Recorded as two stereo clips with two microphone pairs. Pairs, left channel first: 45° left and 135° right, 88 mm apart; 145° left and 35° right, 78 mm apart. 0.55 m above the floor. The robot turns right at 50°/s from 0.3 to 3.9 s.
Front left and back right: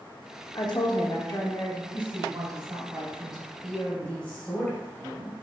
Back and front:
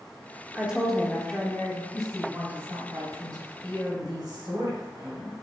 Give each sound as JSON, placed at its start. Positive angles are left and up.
{"t": 0.6, "sound": "a woman speaking", "azimuth_deg": 35, "distance_m": 1.0}
{"t": 1.9, "sound": "a woman speaking", "azimuth_deg": -125, "distance_m": 2.0}